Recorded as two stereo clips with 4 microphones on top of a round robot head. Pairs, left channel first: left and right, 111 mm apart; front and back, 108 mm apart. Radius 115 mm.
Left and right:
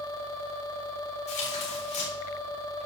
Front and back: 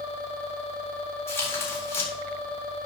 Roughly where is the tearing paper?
Ahead left.